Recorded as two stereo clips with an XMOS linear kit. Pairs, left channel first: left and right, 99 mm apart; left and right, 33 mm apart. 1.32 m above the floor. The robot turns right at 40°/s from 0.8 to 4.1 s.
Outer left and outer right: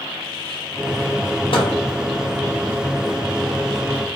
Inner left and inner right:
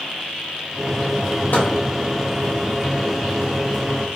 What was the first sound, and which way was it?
A microwave, 60° left (ahead or behind).